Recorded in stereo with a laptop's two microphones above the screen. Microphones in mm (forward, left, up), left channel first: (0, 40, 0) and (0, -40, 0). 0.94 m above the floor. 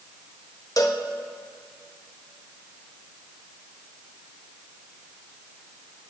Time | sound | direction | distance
0.8 | a cowbell | 45° left (ahead or behind) | 1.5 m